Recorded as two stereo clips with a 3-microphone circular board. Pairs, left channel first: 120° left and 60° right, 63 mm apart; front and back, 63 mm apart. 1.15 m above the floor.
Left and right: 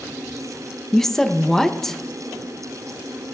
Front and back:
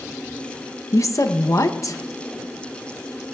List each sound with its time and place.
0.9 s a woman speaking: 35° left, 0.7 m